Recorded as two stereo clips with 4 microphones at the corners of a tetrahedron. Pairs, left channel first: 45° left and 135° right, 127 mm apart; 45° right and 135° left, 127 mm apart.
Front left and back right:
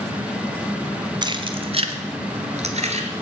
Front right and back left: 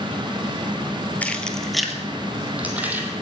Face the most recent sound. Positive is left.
turn(degrees=-150)